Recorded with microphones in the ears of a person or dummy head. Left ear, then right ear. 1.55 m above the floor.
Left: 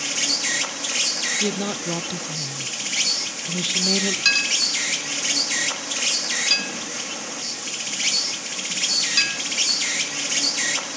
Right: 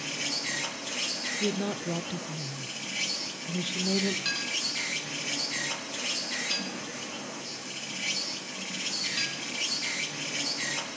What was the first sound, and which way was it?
An insect, 75° left (ahead or behind).